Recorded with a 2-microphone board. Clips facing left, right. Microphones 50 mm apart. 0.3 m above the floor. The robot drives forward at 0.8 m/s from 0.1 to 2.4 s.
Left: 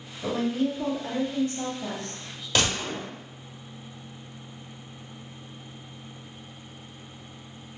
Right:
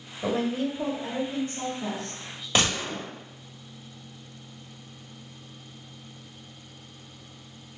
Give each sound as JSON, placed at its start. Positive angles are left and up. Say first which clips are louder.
{"t": 0.2, "sound": "a woman speaking", "louder": "left 1 dB", "side_deg": -30, "distance_m": 1.0}
{"t": 2.5, "sound": "a gunshot", "louder": "even", "side_deg": -20, "distance_m": 1.4}